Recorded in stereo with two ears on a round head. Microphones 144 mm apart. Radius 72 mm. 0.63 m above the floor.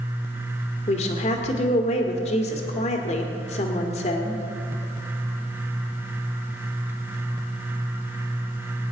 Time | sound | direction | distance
0.9 | a woman speaking | 45° left (ahead or behind) | 1.8 m